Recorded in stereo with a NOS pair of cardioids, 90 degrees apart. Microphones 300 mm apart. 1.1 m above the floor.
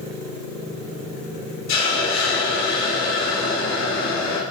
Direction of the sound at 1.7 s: 60° left.